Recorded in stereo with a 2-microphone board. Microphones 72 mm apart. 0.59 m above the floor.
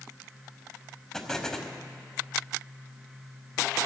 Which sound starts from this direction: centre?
An explosion, at 1.1 s.